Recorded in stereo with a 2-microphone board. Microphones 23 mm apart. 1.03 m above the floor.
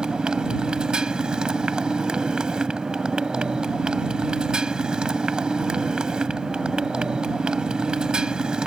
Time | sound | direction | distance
0.0 | a motorcycle | 40° right (ahead or behind) | ?